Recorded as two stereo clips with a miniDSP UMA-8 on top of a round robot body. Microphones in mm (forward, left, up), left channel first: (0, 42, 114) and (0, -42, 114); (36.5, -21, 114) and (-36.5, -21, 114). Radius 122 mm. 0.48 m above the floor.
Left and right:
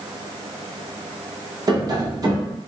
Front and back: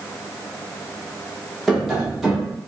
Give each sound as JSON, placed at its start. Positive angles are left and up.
{"t": 1.7, "sound": "tapping", "azimuth_deg": -95, "distance_m": 1.2}